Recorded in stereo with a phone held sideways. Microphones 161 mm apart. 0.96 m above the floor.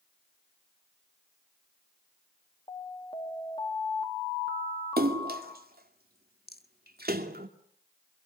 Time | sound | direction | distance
2.7 | an alarm | 30° left (ahead or behind) | 3.5 m
5.0 | a splash | 75° right (ahead or behind) | 2 m
6.5 | a rattle | 80° left | 1.3 m